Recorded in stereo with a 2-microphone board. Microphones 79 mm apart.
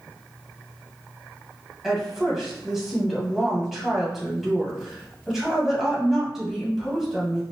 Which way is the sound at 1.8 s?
5° right (ahead or behind).